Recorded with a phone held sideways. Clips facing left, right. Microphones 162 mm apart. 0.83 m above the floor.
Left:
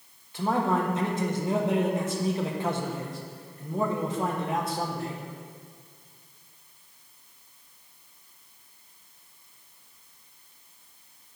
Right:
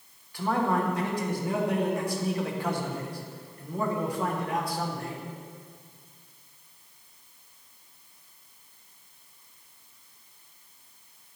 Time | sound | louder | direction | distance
0.3 | a man speaking | left 1 dB | 20° left (ahead or behind) | 1.0 m